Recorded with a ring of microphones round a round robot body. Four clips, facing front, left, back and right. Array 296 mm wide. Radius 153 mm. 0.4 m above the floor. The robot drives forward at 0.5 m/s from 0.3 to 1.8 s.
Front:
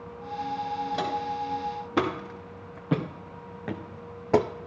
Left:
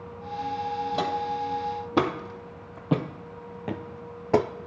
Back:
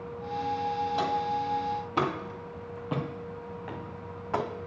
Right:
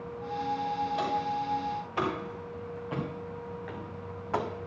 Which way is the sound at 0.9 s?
65° left.